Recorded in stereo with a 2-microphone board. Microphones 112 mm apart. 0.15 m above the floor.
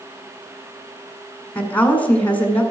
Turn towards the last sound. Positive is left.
turn(degrees=15)  # may be behind; listen again after turning